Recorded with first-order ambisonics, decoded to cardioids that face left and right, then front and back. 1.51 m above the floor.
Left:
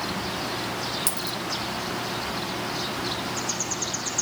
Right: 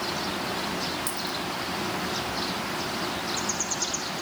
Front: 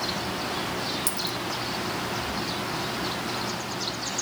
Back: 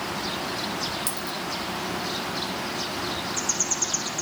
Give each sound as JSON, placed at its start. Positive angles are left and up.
{"t": 1.1, "sound": "a dropped coin", "azimuth_deg": 70, "distance_m": 1.0}